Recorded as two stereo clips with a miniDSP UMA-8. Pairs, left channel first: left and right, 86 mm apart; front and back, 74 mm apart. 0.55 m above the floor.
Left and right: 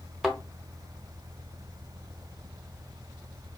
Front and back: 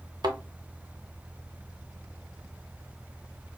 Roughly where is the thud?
Behind.